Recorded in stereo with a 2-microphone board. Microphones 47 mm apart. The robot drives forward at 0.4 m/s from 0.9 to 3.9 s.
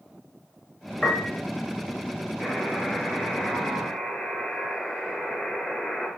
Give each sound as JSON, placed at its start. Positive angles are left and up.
{"t": 1.0, "sound": "a piano", "side_deg": -5, "distance_m": 6.5}
{"t": 2.4, "sound": "a buzzer", "side_deg": -5, "distance_m": 8.5}